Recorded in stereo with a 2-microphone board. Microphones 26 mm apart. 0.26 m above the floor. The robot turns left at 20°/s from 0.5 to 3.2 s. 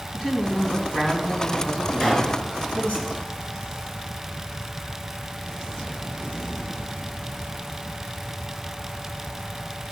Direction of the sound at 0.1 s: 145° left.